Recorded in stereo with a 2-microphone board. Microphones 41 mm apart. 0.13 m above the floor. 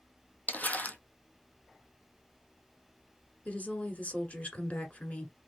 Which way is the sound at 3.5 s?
40° left (ahead or behind).